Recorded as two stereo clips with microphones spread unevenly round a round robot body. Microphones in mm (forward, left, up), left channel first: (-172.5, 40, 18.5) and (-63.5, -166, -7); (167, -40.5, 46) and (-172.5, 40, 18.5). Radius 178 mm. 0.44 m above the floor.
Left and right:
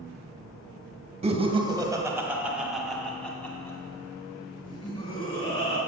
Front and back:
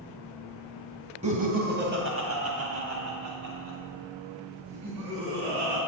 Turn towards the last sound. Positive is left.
turn(degrees=-175)